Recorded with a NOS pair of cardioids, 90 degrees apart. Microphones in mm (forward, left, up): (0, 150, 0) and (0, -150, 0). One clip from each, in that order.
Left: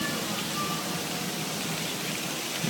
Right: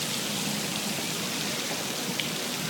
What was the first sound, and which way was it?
Only background noise.